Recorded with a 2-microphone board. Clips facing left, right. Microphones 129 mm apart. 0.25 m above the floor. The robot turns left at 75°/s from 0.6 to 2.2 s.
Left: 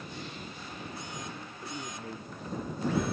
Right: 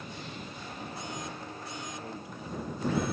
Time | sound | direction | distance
1.6 | a man speaking | 40° left | ?